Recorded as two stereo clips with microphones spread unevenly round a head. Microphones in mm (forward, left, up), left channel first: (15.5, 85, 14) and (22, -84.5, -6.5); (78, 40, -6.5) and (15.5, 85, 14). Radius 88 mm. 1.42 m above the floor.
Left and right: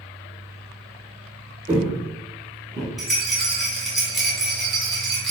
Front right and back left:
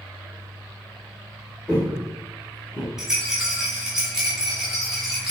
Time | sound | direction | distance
1.7 | footsteps | 130° right | 1.7 m
3.0 | a rattle | 165° left | 0.9 m